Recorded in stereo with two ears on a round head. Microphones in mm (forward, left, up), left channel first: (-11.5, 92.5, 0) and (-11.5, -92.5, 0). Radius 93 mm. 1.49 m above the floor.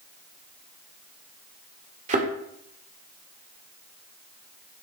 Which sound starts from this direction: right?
A thud, at 2.1 s.